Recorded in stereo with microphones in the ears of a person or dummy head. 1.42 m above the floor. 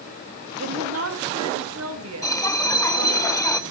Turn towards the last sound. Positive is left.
turn(degrees=5)  # may be behind; listen again after turning